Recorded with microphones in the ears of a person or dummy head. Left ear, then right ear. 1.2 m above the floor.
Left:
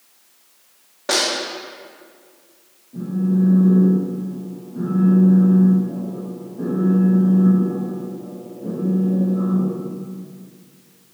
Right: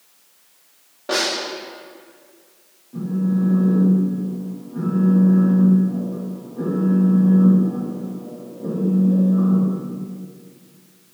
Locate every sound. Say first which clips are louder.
1.1 s a snare drum: left 2 dB; 65° left (ahead or behind), 1.3 m
2.9 s a phone buzzing: left 1 dB; 50° right (ahead or behind), 1.7 m